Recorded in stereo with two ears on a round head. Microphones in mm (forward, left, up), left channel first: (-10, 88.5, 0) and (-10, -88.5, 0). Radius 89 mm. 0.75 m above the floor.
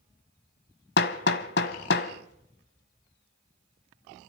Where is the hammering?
55° left (ahead or behind), 1.2 m.